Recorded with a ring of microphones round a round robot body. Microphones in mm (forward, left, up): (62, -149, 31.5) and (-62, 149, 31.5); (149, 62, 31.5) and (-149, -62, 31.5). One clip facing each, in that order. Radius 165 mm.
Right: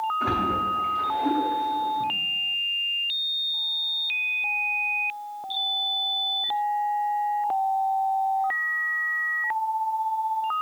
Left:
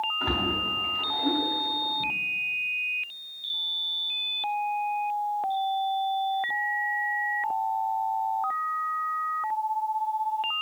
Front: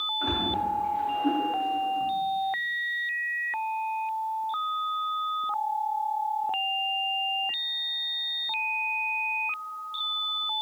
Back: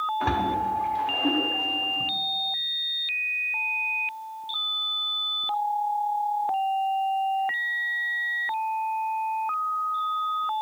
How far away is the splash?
About 2 m.